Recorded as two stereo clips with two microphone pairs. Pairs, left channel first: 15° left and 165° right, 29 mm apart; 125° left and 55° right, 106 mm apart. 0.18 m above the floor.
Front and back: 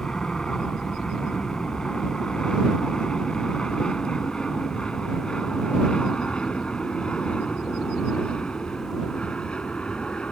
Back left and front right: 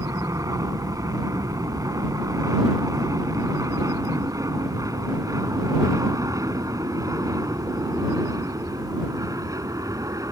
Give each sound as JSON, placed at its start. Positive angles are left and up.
{"t": 0.0, "sound": "an aircraft", "azimuth_deg": -25}